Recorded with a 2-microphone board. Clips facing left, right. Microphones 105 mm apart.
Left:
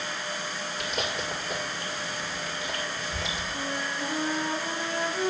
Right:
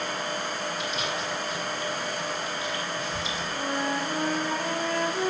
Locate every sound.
0.8 s chewing: 60° left (ahead or behind), 2 m
3.5 s a flute: 65° right (ahead or behind), 4 m